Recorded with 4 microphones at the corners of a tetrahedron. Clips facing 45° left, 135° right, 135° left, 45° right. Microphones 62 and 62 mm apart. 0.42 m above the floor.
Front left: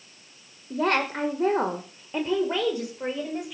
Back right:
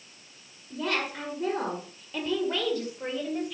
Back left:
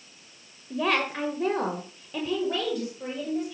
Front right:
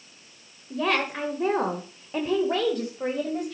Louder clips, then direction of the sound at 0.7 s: Front left 6 dB, even; 50° left.